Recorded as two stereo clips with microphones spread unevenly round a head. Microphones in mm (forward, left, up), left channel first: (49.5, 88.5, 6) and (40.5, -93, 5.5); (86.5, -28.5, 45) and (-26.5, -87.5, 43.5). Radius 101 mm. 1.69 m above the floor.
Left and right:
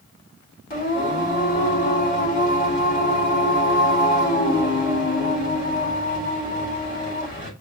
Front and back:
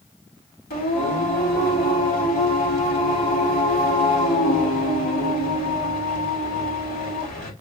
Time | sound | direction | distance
0.7 | singing | 40° left | 4.5 m